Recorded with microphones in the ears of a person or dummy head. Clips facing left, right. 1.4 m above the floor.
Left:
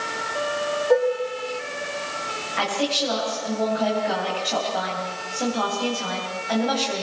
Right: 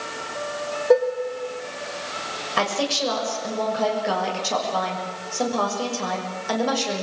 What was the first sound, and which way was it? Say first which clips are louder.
Dishes clattering: right 2 dB; 45° right (ahead or behind).